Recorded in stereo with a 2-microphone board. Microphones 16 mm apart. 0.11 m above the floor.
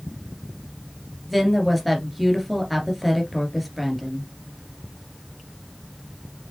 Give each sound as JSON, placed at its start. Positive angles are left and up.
{"t": 1.3, "sound": "a woman speaking", "side_deg": 5, "distance_m": 1.9}